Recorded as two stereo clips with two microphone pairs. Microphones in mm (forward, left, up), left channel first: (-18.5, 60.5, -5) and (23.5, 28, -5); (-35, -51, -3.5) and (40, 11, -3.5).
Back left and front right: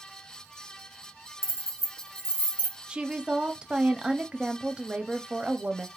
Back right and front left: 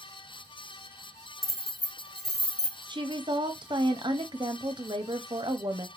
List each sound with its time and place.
1.4 s keys jangling: 130° left, 0.9 m; by 2.8 s 175° right, 1.0 m
2.9 s a woman speaking: 35° left, 0.7 m